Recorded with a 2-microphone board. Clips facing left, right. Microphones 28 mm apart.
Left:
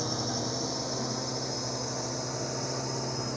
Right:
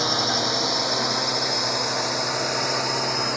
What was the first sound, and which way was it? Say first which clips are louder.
A drone: right 10 dB; 80° right.